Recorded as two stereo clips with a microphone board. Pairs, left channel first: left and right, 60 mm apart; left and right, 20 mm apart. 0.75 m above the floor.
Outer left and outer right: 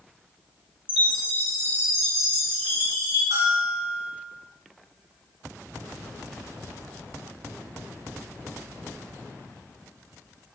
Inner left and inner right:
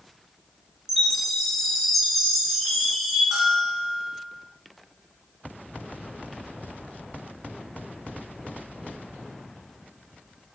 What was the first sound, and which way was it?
A chime, 20° right (ahead or behind).